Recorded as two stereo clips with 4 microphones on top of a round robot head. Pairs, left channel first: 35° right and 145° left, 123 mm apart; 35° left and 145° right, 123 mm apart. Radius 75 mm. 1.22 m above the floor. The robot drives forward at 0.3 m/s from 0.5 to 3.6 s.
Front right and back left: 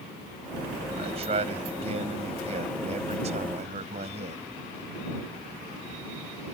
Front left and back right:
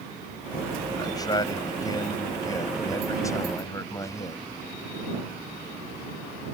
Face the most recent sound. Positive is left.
turn(degrees=105)